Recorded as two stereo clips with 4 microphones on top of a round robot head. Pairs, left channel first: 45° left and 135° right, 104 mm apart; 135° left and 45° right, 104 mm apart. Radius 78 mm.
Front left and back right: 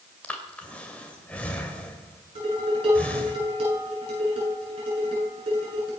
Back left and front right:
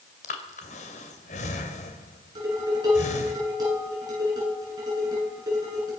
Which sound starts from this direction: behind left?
Breathing, at 0.2 s.